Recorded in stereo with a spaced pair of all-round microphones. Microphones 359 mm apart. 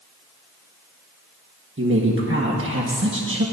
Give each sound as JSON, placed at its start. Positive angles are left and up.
{"t": 1.8, "sound": "a woman speaking", "side_deg": -35, "distance_m": 1.5}